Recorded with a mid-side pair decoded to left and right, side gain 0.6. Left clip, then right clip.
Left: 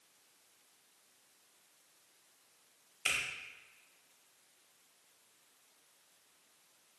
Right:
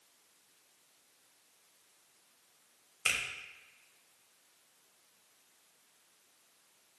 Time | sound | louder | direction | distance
3.0 | a finger snap | right 2 dB | 25° right | 0.7 m